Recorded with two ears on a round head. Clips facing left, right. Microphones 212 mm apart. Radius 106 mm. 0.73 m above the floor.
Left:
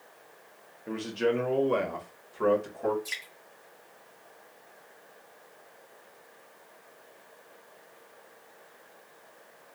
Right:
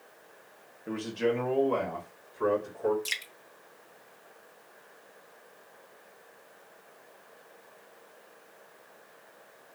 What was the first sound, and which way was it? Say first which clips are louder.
A man speaking: left 1 dB; 10° right (ahead or behind).